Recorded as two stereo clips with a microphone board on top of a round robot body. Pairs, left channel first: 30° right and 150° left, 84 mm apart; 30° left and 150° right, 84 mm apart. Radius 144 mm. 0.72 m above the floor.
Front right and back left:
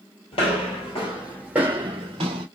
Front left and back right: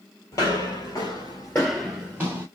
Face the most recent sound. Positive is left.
turn(degrees=140)